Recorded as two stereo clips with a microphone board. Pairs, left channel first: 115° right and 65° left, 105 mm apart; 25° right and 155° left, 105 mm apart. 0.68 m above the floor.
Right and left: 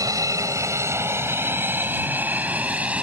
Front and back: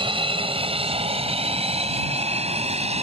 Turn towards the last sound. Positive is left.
turn(degrees=145)